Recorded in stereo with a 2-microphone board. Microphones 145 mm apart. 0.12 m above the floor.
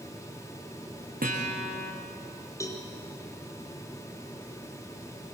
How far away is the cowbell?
About 3.5 m.